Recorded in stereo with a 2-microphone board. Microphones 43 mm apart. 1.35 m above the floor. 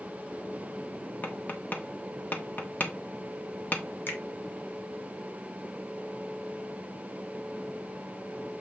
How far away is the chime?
I don't hear a chime.